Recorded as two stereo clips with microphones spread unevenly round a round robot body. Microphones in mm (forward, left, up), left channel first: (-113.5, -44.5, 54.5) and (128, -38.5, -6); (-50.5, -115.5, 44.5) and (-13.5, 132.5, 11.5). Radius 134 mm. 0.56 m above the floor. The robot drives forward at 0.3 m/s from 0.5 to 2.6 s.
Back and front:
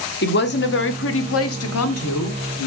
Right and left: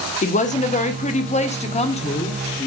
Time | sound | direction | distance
0.2 | a woman speaking | 150° right | 0.9 m